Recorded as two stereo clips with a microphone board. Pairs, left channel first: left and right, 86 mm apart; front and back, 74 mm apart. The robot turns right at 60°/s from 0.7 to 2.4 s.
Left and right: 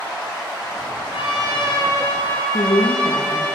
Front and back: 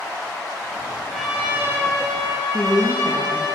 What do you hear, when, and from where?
1.1 s a trumpet: 90° left, 4 m; by 3.5 s 165° left, 4 m
2.5 s a woman speaking: 80° left, 3.5 m